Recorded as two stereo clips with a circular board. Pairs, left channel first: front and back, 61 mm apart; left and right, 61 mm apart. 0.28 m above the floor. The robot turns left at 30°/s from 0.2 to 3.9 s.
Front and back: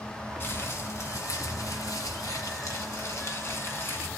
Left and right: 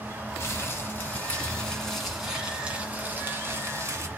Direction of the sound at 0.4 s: 50° left.